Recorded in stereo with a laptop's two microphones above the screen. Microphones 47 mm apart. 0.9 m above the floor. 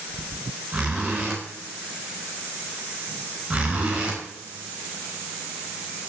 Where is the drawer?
I don't hear a drawer.